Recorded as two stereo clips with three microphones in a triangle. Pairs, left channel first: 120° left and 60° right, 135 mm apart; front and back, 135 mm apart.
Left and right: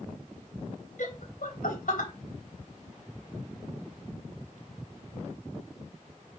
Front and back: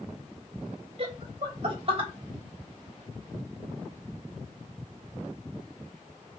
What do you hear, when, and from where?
1.0 s laughter: 135° left, 3 m